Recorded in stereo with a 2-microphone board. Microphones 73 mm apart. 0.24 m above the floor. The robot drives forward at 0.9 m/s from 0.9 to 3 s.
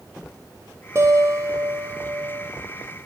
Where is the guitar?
40° right (ahead or behind), 3 m; by 2.5 s 60° right (ahead or behind), 2 m.